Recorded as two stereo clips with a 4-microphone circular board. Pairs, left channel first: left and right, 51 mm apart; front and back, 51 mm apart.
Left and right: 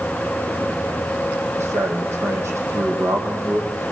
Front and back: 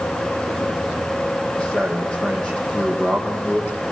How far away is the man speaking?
About 5.5 m.